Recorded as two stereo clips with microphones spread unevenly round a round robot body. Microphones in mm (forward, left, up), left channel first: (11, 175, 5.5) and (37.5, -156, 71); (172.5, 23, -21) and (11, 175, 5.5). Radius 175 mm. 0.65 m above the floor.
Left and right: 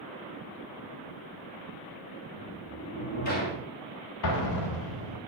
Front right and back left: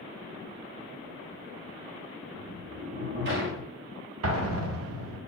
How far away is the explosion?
About 0.9 m.